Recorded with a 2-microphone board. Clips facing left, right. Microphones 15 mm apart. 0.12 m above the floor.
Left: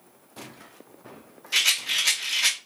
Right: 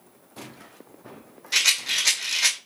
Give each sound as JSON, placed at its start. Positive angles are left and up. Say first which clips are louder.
{"t": 1.5, "sound": "a rattle", "louder": "right 1 dB", "side_deg": -35, "distance_m": 0.9}